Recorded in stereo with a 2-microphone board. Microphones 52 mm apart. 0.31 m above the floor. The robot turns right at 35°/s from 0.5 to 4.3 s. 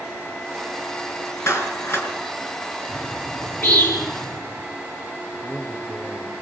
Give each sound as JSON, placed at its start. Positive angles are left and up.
{"t": 1.5, "sound": "a clap", "side_deg": 65, "distance_m": 4.0}
{"t": 2.9, "sound": "a bird", "side_deg": 30, "distance_m": 5.0}
{"t": 5.4, "sound": "a man speaking", "side_deg": 15, "distance_m": 4.5}